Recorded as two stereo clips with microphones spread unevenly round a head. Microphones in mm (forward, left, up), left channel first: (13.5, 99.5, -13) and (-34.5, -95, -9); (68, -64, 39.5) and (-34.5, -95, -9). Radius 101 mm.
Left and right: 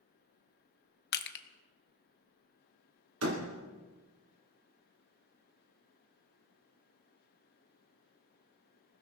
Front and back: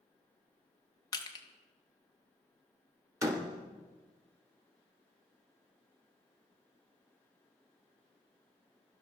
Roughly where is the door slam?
Right.